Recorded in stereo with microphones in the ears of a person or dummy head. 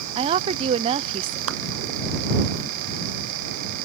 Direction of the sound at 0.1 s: 35° right (ahead or behind).